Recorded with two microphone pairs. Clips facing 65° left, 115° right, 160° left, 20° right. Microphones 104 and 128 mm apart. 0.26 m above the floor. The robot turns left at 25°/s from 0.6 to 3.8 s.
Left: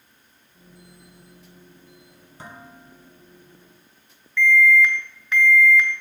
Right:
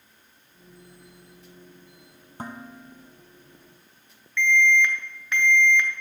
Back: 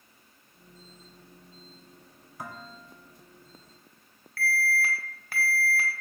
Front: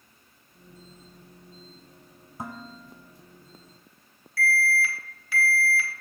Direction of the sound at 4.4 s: 155° left.